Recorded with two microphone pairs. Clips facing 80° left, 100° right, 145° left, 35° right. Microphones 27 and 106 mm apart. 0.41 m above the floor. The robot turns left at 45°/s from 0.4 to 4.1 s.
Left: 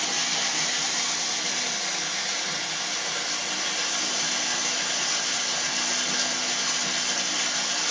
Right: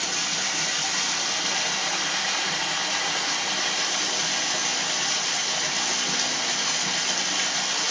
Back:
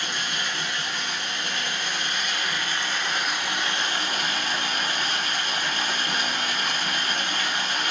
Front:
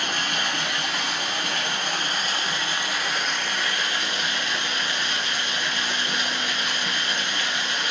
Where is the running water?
Straight ahead, 1.6 m; by 7.9 s 165° right, 1.6 m.